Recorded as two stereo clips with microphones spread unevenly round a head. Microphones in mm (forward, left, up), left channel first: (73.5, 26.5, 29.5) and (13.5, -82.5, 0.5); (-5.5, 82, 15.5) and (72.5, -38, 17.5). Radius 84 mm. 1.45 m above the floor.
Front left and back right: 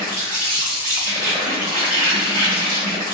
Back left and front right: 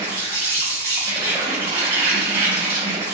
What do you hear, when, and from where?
0.0 s an insect: 110° right, 1.4 m